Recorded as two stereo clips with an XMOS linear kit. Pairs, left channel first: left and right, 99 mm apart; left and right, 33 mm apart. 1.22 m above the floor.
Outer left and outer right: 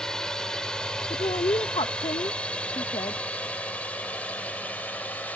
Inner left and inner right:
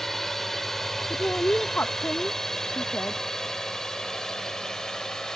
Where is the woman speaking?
75° left (ahead or behind).